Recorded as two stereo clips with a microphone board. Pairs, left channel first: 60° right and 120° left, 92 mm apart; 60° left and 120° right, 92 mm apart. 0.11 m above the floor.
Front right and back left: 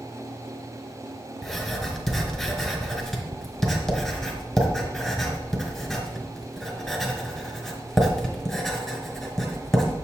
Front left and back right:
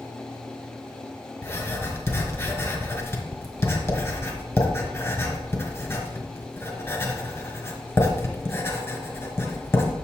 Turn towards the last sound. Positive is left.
turn(degrees=30)